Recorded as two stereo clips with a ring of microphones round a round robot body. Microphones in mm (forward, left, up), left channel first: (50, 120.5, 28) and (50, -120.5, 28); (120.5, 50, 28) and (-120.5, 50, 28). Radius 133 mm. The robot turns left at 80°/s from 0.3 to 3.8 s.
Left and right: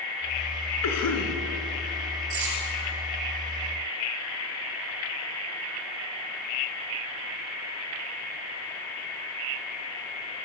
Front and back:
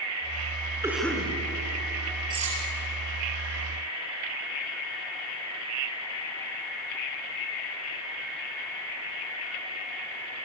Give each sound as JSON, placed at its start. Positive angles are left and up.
{"t": 0.8, "sound": "a cough", "azimuth_deg": 105, "distance_m": 5.0}
{"t": 2.3, "sound": "cutlery clinking", "azimuth_deg": -105, "distance_m": 5.0}